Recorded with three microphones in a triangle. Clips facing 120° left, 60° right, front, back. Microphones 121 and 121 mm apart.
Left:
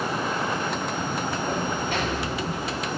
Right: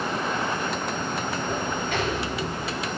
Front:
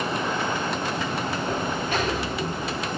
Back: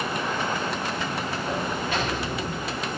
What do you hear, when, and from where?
1.5 s a sliding door: 125° left, 3 m